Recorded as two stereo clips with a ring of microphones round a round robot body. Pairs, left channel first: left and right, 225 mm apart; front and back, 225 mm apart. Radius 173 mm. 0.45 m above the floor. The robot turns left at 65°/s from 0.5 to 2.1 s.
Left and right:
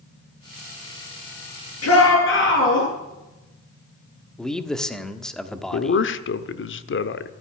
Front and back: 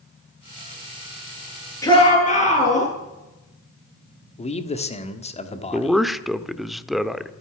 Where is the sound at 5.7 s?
90° left, 1.1 m.